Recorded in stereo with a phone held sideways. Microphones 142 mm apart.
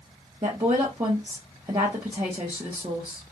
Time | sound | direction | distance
0.4 | a woman speaking | 30° right (ahead or behind) | 0.9 m